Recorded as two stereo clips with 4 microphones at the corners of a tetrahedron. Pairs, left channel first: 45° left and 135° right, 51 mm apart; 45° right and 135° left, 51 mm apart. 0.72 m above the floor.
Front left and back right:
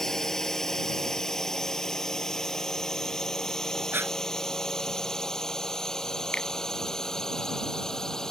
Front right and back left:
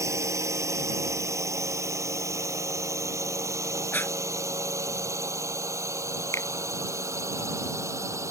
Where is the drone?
125° left.